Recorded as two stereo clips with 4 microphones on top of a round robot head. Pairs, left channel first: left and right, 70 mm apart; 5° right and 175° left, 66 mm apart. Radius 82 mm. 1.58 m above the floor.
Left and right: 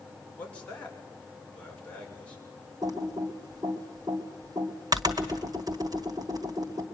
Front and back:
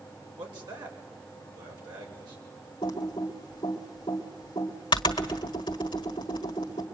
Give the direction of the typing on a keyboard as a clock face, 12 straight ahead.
1 o'clock.